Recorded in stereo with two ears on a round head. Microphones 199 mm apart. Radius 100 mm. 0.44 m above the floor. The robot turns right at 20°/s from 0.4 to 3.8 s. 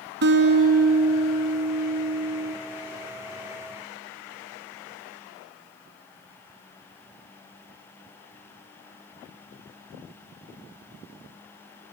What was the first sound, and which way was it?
A guitar, 125° right.